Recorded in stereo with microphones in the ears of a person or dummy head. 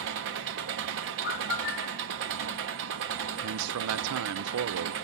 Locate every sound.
0.0 s an engine running: 55° right (ahead or behind), 1.2 m
1.2 s a bird: 55° left (ahead or behind), 2.0 m
3.4 s a man speaking: 85° right, 0.6 m